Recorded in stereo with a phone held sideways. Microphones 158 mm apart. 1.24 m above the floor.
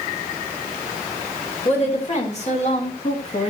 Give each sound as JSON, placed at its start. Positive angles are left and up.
{"t": 1.6, "sound": "a woman speaking", "side_deg": 45, "distance_m": 4.5}